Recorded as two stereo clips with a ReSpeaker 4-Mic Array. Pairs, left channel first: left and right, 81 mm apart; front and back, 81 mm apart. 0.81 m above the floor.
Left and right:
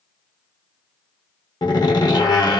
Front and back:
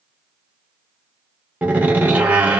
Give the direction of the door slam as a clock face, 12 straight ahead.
8 o'clock.